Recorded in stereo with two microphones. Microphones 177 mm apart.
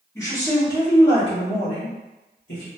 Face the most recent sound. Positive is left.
turn(degrees=65)  # may be behind; listen again after turning